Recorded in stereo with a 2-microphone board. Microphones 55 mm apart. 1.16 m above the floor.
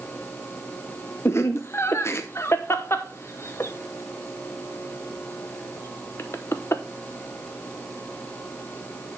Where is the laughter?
50° left (ahead or behind), 0.9 m.